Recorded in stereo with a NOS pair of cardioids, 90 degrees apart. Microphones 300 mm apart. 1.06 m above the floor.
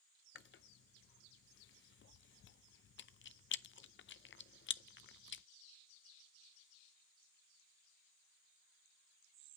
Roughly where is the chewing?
Ahead left.